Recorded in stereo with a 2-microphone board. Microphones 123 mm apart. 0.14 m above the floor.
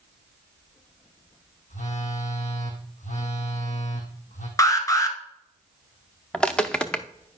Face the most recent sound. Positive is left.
turn(degrees=10)  # may be behind; listen again after turning